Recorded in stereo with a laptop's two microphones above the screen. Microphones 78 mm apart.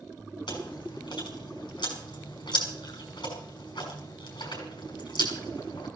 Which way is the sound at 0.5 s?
75° left (ahead or behind).